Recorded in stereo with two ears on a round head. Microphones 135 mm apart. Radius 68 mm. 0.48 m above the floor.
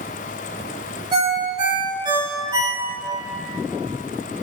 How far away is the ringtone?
About 1.9 m.